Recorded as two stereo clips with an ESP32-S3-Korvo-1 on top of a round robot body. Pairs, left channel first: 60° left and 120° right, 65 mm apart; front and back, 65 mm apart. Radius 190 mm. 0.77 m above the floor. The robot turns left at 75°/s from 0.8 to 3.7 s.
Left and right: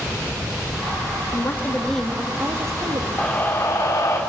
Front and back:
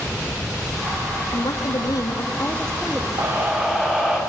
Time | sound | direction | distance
1.3 | a woman speaking | 25° left | 2.0 m
3.2 | a scream | 140° left | 2.5 m